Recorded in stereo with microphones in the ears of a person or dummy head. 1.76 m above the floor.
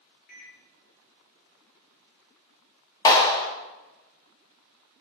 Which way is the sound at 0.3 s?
55° left (ahead or behind).